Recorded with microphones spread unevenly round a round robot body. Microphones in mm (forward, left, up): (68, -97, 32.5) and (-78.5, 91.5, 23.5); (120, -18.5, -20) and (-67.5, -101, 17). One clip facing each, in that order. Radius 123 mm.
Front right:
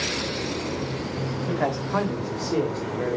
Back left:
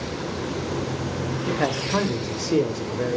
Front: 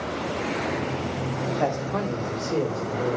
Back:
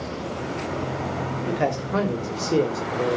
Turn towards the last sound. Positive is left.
turn(degrees=160)